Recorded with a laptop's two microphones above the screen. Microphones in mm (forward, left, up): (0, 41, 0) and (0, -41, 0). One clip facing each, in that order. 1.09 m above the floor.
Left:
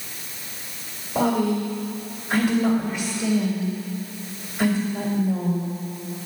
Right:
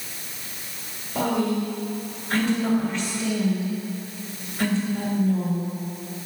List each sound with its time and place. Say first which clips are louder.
1.1 s a woman speaking: left 2 dB; 15° left (ahead or behind), 1.8 m